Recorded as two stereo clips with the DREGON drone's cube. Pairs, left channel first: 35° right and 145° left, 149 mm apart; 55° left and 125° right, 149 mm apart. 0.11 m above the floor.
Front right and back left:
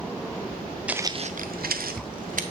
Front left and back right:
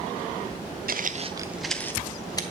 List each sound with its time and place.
0.9 s footsteps: 130° right, 0.6 m; by 2.4 s 120° left, 1.3 m